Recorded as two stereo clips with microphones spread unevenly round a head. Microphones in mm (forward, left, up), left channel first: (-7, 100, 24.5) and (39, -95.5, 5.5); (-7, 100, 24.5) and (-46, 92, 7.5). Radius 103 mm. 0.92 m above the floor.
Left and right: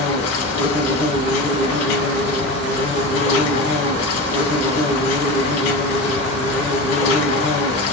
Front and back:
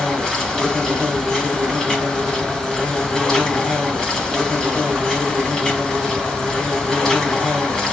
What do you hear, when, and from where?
0.0 s an insect: 90° left, 3 m